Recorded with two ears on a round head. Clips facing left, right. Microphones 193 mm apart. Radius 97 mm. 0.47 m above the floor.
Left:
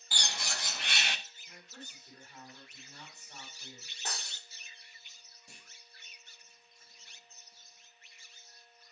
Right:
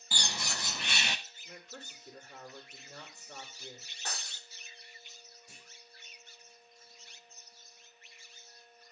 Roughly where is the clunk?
Left.